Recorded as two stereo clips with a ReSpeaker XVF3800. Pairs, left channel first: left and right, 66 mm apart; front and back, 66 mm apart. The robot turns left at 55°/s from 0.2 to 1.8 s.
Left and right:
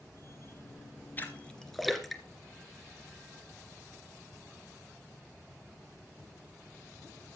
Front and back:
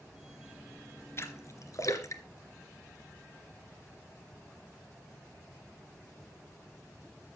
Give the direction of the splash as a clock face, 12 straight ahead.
11 o'clock.